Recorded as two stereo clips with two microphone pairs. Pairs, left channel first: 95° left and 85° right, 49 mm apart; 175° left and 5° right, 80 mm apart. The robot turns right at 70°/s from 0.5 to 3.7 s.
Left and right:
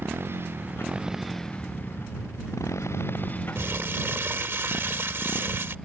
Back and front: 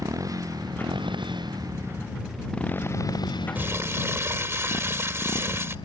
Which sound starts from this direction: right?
Crumpling, at 3.5 s.